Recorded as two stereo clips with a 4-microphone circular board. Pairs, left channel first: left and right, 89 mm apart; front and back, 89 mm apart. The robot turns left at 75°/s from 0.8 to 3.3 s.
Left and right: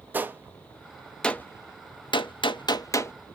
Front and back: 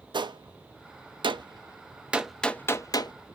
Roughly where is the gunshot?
Behind right.